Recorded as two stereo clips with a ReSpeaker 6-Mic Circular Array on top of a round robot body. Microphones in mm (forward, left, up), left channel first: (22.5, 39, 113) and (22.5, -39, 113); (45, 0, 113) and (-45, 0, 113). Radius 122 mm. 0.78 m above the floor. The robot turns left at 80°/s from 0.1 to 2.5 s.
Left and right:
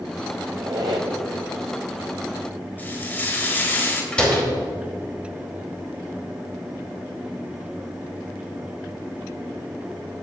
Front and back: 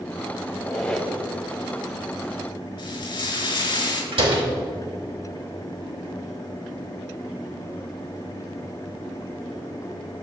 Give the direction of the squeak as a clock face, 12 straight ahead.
1 o'clock.